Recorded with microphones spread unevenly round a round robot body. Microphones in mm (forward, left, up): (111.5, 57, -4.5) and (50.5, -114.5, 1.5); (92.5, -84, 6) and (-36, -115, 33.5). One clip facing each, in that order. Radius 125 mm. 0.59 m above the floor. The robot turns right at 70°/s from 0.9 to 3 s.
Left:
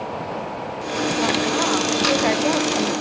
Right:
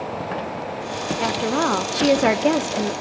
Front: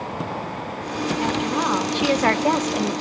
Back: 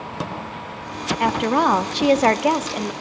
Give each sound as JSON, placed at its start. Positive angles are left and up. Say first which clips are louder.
{"t": 1.2, "sound": "a woman speaking", "louder": "right 2 dB, back 7 dB", "azimuth_deg": -170, "distance_m": 1.1}